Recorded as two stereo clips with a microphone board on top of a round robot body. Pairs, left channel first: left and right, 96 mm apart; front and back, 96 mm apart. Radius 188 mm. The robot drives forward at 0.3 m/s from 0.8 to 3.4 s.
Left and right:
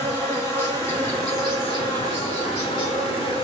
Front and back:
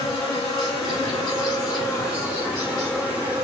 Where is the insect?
35° left, 1.1 m; by 3.5 s 105° left, 0.9 m.